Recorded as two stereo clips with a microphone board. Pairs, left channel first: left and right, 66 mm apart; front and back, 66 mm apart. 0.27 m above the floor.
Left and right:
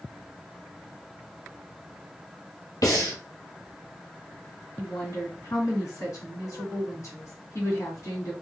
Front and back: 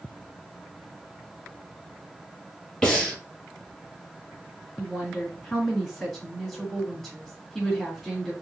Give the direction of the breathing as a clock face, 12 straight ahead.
9 o'clock.